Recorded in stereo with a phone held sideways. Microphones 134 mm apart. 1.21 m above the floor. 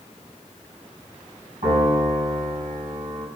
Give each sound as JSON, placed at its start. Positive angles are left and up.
{"t": 1.6, "sound": "a piano", "side_deg": -85, "distance_m": 7.5}